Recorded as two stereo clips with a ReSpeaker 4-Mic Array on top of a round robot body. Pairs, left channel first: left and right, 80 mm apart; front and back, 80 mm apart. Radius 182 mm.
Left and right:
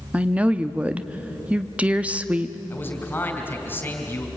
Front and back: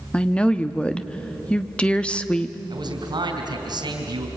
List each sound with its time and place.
0.1 s a woman speaking: 50° right, 1.3 m
2.7 s a man speaking: 155° left, 4 m